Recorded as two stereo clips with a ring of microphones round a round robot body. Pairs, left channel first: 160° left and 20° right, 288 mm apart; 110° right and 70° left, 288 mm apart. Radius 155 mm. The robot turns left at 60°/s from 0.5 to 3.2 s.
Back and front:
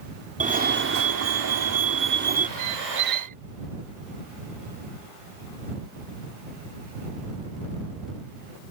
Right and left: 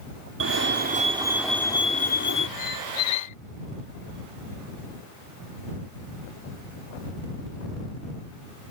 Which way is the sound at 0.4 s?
35° left.